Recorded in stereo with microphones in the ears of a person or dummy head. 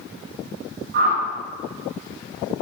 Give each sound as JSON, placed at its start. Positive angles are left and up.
{"t": 0.9, "sound": "a whoosh", "side_deg": -60, "distance_m": 1.4}